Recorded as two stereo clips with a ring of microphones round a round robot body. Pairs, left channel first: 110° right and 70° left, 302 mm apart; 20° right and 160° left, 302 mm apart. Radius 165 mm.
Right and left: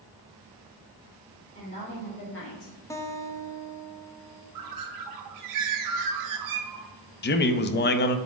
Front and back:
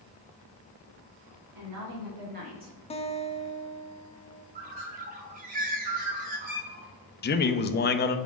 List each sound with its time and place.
1.6 s a woman speaking: straight behind, 2.5 m; by 2.8 s 120° right, 1.4 m
2.9 s a guitar: 50° right, 0.7 m
4.5 s a bird: 90° left, 0.9 m
7.2 s a man speaking: 70° right, 0.6 m